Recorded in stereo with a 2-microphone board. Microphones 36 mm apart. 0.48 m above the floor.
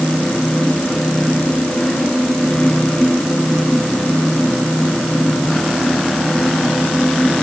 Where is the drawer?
No drawer in this recording.